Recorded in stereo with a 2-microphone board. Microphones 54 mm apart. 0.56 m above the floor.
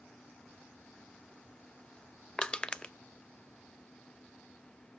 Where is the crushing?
15° left (ahead or behind), 0.5 m.